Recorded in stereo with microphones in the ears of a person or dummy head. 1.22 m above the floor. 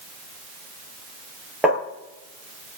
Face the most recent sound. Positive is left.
turn(degrees=-10)  # may be behind; listen again after turning